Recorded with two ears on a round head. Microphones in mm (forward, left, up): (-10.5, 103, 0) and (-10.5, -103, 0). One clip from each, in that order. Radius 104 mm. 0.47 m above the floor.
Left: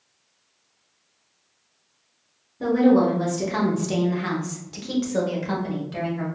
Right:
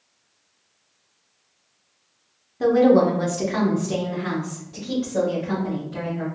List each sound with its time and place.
2.6 s a woman speaking: 35° right (ahead or behind), 0.9 m; by 6.2 s 70° left (ahead or behind), 1.7 m